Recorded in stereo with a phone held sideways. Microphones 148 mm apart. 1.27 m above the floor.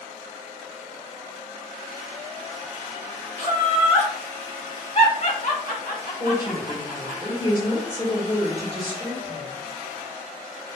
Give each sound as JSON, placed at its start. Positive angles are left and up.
{"t": 3.4, "sound": "laughter", "side_deg": -35, "distance_m": 0.8}
{"t": 6.2, "sound": "a woman speaking", "side_deg": 40, "distance_m": 1.3}